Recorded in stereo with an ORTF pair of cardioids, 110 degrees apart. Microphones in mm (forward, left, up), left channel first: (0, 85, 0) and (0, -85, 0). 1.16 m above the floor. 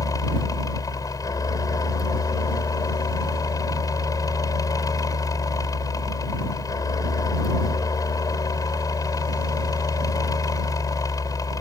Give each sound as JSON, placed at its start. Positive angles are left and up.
{"t": 0.0, "sound": "a fan", "azimuth_deg": 20}